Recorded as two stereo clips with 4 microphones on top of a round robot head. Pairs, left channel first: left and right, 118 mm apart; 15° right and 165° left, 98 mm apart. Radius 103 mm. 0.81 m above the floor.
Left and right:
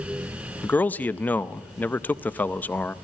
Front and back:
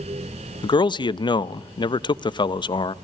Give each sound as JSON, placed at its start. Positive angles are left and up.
{"t": 0.6, "sound": "a man speaking", "azimuth_deg": 15, "distance_m": 0.6}